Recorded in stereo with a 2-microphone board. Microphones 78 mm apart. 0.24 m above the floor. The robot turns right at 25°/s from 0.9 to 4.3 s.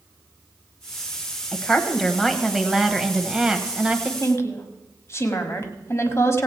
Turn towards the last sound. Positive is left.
turn(degrees=35)  # may be behind; listen again after turning